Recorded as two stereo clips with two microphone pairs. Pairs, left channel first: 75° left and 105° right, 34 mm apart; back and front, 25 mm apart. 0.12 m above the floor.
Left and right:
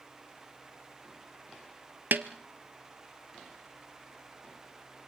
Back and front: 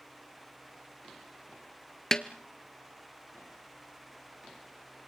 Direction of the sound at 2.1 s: 110° right.